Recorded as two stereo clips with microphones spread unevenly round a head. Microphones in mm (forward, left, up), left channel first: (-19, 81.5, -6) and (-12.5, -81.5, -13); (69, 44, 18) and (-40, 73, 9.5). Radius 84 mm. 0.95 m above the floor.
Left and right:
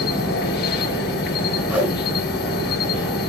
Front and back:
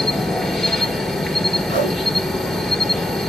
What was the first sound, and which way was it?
An insect, 80° left.